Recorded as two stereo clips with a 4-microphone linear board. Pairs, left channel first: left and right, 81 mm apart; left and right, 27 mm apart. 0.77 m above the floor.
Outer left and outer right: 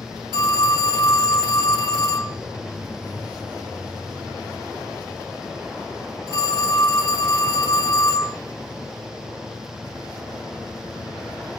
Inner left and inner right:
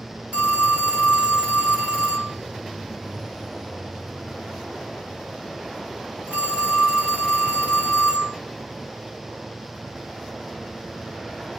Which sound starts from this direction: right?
A phone ringing, at 0.3 s.